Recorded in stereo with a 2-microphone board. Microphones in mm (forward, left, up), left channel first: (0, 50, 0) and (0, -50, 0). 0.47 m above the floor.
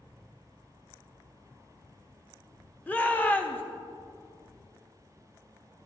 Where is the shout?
15° left (ahead or behind), 1.0 m.